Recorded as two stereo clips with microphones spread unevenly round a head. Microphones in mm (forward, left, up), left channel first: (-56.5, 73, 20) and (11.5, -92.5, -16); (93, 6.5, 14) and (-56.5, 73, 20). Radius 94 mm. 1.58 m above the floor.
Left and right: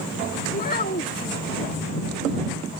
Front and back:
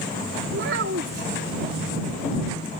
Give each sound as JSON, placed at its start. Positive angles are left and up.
{"t": 0.5, "sound": "a child speaking", "azimuth_deg": 150}